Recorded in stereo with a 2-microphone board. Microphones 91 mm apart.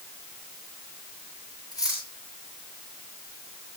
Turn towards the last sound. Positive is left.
turn(degrees=40)  # may be behind; listen again after turning